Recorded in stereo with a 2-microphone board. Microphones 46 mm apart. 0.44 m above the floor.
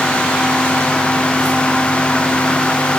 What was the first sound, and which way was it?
Only background noise.